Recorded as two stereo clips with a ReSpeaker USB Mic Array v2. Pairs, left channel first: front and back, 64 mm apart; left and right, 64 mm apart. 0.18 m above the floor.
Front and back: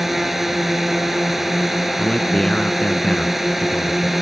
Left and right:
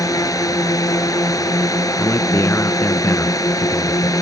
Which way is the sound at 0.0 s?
95° left.